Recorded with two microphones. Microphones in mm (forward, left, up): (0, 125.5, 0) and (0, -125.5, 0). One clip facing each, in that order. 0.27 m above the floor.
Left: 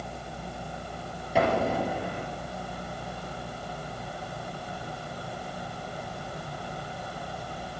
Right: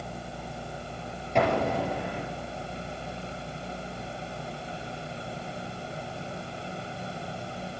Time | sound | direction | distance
1.4 | an explosion | 5° left (ahead or behind) | 3.5 m